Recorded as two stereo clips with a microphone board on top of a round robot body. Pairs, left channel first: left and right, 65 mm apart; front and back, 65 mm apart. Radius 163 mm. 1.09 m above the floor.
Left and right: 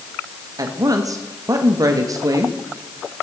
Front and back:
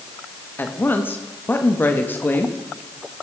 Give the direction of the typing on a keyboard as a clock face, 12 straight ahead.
I don't hear typing on a keyboard.